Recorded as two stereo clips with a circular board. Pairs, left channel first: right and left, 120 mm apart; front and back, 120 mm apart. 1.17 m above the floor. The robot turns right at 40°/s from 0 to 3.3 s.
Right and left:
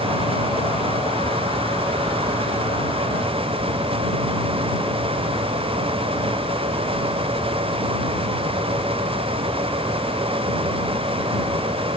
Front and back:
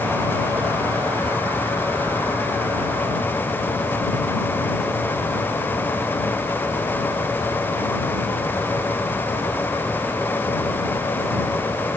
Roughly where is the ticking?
I don't hear ticking.